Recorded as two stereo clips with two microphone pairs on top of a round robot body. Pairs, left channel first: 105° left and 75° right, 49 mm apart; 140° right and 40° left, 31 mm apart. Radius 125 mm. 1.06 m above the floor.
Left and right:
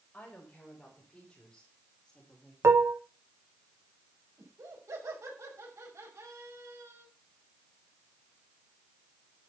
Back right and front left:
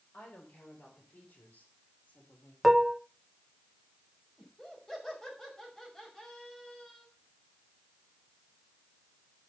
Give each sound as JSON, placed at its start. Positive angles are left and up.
{"t": 0.1, "sound": "a woman speaking", "azimuth_deg": 175, "distance_m": 6.5}
{"t": 2.6, "sound": "dishes clattering", "azimuth_deg": -45, "distance_m": 0.6}
{"t": 4.4, "sound": "laughter", "azimuth_deg": -70, "distance_m": 5.0}